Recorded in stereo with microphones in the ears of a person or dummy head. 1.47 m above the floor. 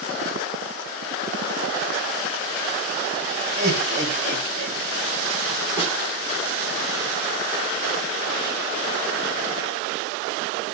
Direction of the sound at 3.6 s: 30° right (ahead or behind).